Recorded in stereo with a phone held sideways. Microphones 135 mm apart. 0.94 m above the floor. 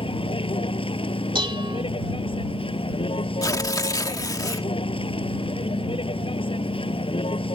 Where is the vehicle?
45° left (ahead or behind).